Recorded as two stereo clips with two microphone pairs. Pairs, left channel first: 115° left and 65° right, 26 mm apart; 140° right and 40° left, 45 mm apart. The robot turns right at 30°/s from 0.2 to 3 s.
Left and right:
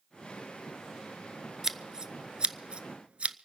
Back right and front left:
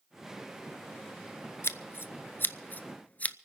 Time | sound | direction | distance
1.6 | scissors | 135° right | 0.6 m